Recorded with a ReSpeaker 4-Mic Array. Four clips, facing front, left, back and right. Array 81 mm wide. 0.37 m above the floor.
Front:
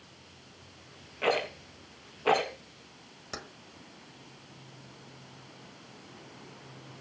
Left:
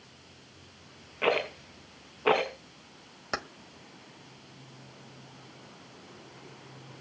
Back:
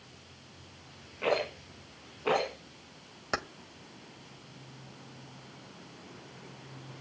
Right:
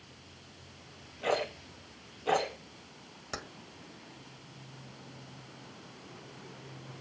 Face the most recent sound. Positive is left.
turn(degrees=140)